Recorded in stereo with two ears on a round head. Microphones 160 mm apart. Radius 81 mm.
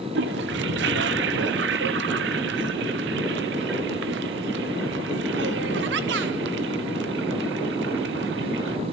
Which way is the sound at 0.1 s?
65° right (ahead or behind).